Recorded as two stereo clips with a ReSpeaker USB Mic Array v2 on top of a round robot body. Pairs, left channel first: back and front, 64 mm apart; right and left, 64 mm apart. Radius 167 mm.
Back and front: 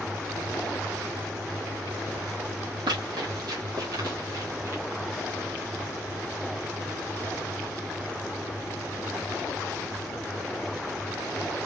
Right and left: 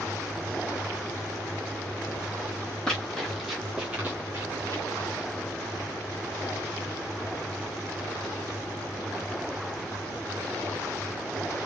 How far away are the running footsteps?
About 1.4 m.